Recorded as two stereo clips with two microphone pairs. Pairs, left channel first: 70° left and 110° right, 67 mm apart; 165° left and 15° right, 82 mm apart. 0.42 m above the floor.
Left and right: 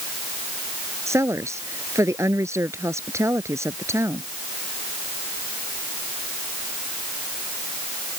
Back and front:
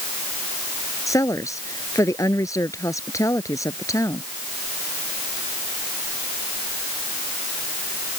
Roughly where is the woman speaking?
Behind right.